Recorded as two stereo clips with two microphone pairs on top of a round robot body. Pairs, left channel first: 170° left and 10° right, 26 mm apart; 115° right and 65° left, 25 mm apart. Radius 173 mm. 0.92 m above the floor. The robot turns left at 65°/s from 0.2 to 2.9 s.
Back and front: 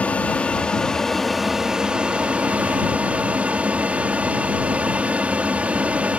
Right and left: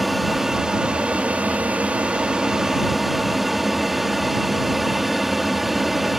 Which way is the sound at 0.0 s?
160° left.